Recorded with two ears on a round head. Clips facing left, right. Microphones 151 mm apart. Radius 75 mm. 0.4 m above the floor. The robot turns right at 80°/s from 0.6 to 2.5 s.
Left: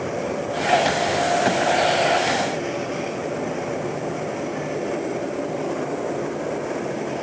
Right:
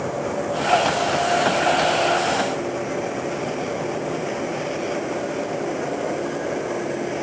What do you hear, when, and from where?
Only background noise.